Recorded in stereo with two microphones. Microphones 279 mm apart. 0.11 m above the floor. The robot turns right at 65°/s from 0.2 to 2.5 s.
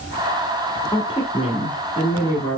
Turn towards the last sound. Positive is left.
turn(degrees=10)  # may be behind; listen again after turning